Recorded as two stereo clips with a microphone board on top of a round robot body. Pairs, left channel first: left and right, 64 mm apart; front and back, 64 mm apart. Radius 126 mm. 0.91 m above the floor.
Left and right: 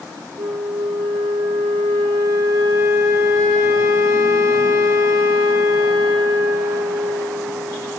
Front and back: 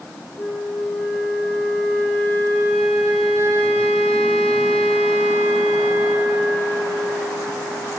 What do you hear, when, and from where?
0.4 s a flute: 70° right, 6 m